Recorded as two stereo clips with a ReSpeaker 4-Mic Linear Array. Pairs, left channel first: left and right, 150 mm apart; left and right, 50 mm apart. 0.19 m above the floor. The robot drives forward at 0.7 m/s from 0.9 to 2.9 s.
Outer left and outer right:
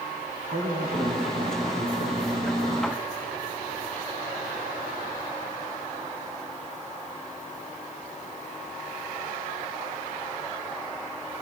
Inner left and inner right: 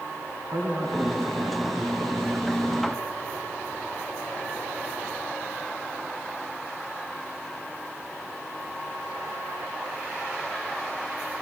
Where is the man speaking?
60° right (ahead or behind), 2.5 m; by 3.0 s 50° right (ahead or behind), 3 m.